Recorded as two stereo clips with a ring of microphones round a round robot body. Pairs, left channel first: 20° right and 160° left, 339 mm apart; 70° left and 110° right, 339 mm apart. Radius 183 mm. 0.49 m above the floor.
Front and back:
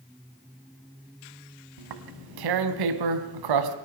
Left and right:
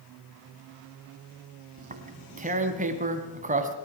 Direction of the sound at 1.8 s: Straight behind.